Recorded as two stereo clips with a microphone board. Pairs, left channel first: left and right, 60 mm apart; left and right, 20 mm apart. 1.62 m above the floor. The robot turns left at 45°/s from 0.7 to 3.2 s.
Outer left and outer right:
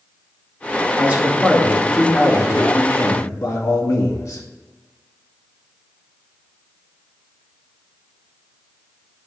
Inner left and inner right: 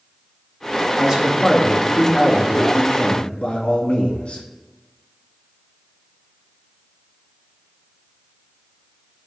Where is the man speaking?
150° right, 2.5 m; by 4.4 s 110° left, 2.5 m.